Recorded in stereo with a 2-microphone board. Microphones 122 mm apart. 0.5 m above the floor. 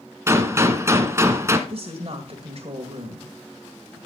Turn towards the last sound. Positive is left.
turn(degrees=-55)  # may be behind; listen again after turning